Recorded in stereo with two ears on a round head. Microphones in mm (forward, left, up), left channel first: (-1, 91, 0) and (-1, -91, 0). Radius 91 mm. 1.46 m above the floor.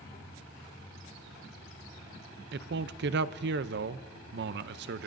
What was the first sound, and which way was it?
A man speaking, 55° right (ahead or behind).